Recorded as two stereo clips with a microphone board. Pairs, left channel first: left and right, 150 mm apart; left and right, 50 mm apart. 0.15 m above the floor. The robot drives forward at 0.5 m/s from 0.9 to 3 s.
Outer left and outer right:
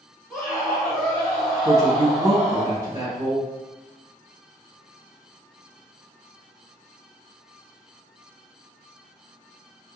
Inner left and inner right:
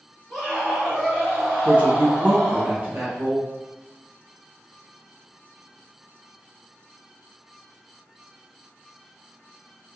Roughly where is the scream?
Centre.